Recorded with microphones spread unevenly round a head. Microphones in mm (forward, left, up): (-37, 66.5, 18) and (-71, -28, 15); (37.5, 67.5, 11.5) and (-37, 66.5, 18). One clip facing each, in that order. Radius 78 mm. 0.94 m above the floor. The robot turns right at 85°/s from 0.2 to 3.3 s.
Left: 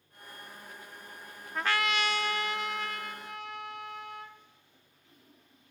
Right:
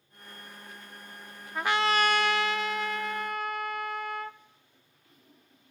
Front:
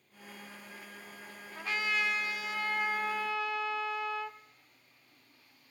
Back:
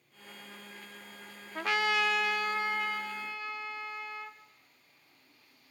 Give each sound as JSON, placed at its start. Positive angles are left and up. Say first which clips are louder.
{"t": 1.6, "sound": "a trumpet", "louder": "right 4 dB, back 4 dB", "azimuth_deg": 165, "distance_m": 0.5}